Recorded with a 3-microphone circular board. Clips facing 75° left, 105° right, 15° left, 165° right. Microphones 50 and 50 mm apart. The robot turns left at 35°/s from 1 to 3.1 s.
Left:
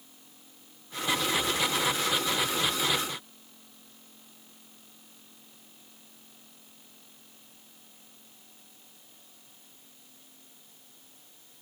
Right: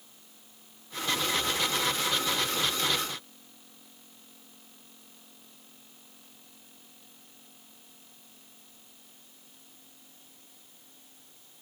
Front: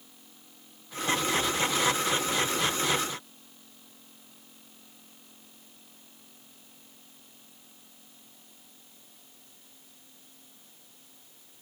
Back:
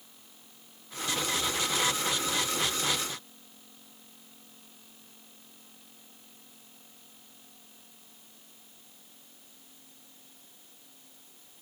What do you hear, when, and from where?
Only background noise.